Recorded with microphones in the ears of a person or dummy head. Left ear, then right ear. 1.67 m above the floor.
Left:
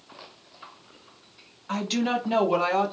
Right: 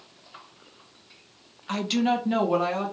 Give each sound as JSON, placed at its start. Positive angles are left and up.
{"t": 1.7, "sound": "a woman speaking", "side_deg": -20, "distance_m": 0.7}